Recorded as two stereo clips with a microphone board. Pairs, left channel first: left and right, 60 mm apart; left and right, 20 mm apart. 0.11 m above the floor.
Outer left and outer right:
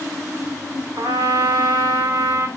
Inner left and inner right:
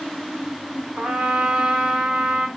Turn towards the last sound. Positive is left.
turn(degrees=-75)  # may be behind; listen again after turning